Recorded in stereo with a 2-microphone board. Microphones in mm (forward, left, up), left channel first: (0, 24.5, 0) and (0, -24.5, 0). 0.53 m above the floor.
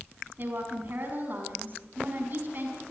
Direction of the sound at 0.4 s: 45° right (ahead or behind).